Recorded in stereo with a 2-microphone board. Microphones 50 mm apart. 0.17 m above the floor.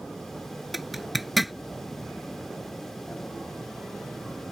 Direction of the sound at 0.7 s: Centre (ahead or behind).